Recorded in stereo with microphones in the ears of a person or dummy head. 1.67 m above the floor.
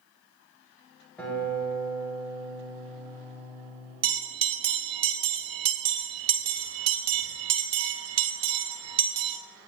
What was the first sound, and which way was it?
A guitar, 10° left (ahead or behind).